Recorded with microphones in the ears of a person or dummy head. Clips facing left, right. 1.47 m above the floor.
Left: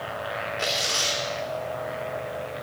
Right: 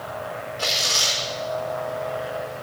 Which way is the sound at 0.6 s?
25° left (ahead or behind).